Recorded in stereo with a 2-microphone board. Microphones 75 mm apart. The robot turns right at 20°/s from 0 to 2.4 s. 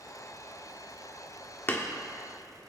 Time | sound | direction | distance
1.7 | hammering | 35° left (ahead or behind) | 1.8 m